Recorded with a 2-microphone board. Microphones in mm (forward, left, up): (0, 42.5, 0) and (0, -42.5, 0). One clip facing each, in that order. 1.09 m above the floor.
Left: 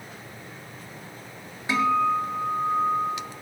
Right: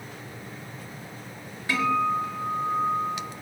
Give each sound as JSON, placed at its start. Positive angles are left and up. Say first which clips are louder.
{"t": 1.7, "sound": "a guitar", "louder": "left 2 dB", "side_deg": 20, "distance_m": 1.7}